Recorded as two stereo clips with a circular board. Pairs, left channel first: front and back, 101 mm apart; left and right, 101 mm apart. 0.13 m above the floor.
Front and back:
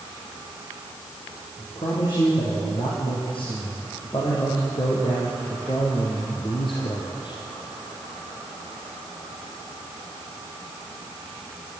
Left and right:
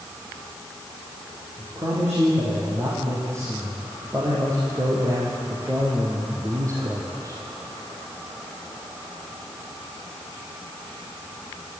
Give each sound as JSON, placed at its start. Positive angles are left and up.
{"t": 1.6, "sound": "a man speaking", "azimuth_deg": -30, "distance_m": 7.0}